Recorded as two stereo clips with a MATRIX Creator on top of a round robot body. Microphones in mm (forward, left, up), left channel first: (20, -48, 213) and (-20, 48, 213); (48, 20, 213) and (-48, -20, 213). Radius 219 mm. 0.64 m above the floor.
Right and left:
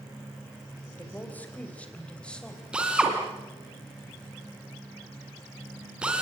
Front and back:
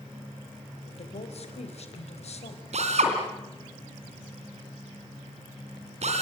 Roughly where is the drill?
Behind.